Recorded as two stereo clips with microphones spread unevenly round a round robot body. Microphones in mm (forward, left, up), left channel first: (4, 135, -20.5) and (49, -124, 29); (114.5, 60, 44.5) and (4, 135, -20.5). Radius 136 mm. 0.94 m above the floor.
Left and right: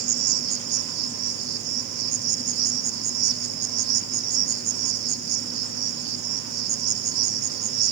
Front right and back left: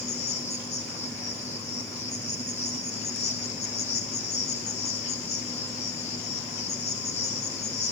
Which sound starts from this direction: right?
An insect, at 0.0 s.